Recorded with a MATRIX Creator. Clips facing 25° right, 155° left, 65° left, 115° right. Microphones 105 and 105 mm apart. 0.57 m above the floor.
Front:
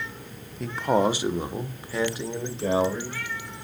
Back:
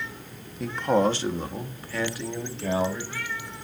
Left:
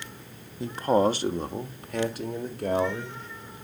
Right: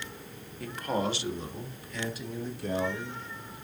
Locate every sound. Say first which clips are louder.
0.6 s a man speaking: even, left 8 dB; 70° left, 0.6 m; by 3.2 s 45° left, 2 m